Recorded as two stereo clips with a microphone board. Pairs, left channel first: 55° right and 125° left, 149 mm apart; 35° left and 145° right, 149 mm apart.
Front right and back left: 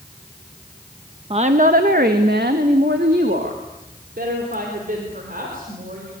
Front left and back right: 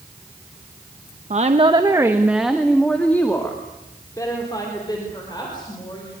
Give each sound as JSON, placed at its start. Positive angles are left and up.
{"t": 1.3, "sound": "a woman speaking", "azimuth_deg": 175, "distance_m": 1.1}